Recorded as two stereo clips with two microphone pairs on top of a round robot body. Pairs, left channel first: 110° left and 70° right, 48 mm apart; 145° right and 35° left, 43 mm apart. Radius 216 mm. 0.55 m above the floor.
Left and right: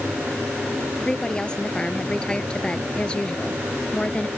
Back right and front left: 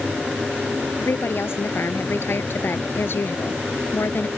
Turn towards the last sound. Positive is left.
turn(degrees=180)